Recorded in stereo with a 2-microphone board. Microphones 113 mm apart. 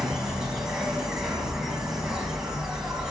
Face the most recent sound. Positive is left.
turn(degrees=-5)  # may be behind; listen again after turning